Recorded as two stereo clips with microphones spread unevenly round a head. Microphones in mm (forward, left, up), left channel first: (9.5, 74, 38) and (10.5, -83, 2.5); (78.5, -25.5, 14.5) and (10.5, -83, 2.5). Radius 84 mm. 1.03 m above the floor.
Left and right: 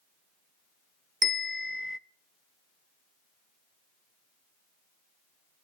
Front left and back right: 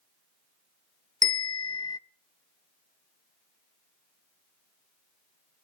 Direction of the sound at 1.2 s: Straight ahead.